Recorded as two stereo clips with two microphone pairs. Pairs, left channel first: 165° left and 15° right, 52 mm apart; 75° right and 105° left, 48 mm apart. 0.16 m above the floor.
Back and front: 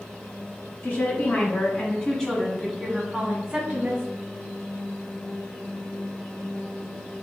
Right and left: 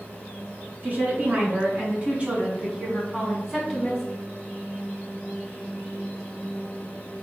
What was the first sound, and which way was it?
A woman speaking, 135° left.